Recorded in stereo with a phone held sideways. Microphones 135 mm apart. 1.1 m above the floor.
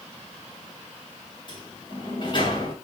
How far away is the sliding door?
About 3 m.